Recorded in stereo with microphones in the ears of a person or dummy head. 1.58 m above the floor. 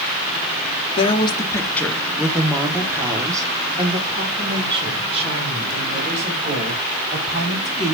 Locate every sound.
1.0 s a woman speaking: 35° left (ahead or behind), 1.2 m; by 7.9 s 45° right (ahead or behind), 4.5 m